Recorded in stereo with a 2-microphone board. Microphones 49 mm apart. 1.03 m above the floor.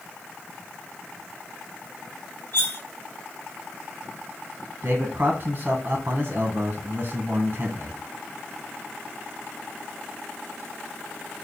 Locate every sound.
2.5 s cutlery clinking: 40° left (ahead or behind), 0.8 m
4.8 s a man speaking: 40° right (ahead or behind), 0.9 m